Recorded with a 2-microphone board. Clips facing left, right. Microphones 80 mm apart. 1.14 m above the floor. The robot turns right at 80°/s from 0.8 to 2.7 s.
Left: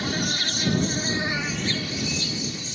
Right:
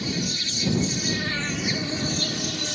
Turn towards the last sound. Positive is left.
turn(degrees=-90)